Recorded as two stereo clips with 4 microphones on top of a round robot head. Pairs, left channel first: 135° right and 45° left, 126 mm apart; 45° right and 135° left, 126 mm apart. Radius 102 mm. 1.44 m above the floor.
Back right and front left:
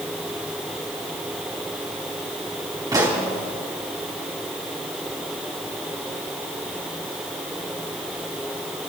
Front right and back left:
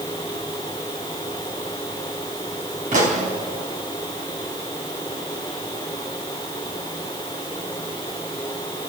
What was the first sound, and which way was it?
A pop, 105° left.